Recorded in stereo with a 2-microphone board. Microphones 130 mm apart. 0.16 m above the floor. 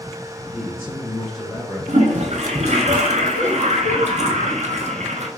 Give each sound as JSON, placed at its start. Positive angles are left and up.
{"t": 0.5, "sound": "a man speaking", "side_deg": -15, "distance_m": 1.3}
{"t": 1.9, "sound": "a toilet flushing", "side_deg": -60, "distance_m": 0.7}